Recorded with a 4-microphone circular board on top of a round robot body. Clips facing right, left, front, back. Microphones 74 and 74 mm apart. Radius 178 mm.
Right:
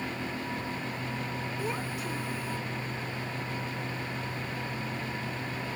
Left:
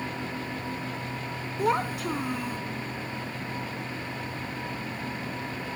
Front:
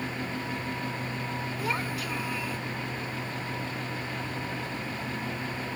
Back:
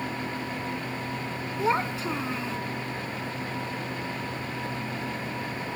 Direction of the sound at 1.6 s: 115° left.